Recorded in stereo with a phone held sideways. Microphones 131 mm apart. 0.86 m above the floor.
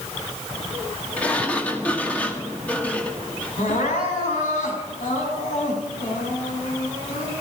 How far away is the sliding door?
About 1.8 m.